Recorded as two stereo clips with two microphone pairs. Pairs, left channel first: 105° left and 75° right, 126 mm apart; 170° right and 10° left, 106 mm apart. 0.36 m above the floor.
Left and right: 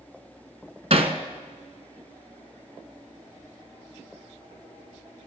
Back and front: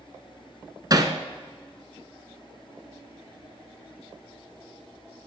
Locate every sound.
0.9 s hammering: 45° right, 1.3 m